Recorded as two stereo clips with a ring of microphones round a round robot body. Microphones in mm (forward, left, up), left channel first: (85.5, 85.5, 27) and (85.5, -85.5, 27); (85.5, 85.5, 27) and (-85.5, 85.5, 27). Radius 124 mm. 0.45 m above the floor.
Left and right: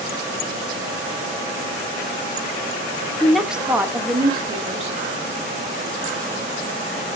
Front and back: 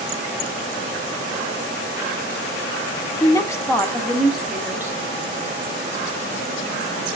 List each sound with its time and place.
3.2 s a woman speaking: 10° left, 1.2 m; by 5.0 s 110° right, 1.5 m